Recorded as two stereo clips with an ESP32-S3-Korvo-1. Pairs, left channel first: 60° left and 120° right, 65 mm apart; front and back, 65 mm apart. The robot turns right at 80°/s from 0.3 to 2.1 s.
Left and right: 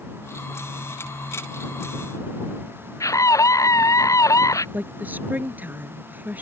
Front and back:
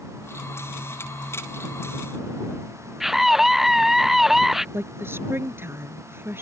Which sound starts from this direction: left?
A scream, at 3.0 s.